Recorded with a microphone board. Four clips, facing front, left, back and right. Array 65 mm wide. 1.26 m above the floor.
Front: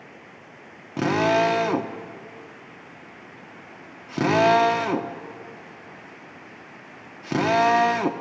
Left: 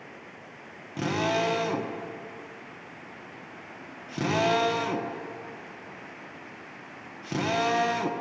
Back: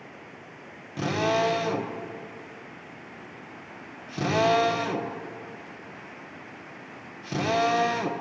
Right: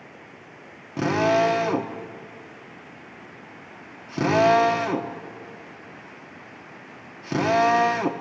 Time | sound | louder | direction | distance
1.0 | a drill | right 7 dB, front 5 dB | 20° right | 1.2 m